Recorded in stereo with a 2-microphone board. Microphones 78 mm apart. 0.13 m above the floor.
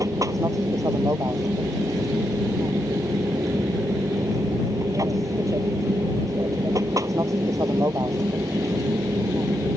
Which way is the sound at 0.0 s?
45° right (ahead or behind).